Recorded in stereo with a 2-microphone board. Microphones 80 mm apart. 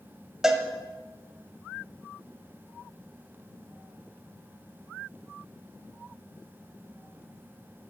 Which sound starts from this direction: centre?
A cowbell, at 0.4 s.